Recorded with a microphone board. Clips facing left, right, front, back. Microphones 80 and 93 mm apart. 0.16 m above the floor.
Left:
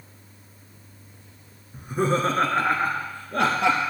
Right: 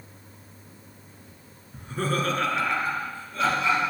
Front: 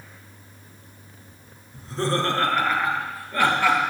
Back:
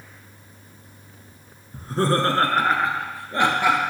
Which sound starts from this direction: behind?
Laughter, at 1.7 s.